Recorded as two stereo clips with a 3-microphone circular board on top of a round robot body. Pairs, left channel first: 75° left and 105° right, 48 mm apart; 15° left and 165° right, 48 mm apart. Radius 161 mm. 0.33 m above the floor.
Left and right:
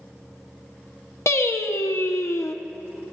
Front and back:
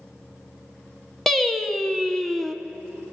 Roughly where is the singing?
Left.